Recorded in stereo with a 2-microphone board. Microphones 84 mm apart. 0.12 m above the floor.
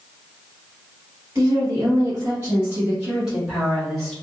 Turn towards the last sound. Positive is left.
turn(degrees=5)  # may be behind; listen again after turning